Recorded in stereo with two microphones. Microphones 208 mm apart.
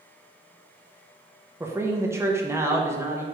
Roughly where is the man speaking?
Centre.